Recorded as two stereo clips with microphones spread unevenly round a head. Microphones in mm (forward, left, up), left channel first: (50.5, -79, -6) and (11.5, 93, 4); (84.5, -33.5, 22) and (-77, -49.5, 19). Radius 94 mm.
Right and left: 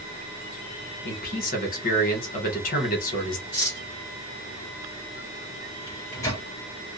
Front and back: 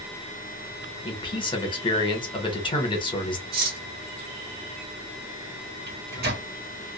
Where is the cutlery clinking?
145° right, 1.2 m.